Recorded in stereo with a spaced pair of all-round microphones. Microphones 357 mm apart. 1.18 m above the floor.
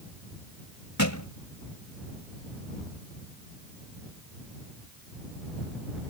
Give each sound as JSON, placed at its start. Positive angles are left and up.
{"t": 1.0, "sound": "a thud", "side_deg": 55}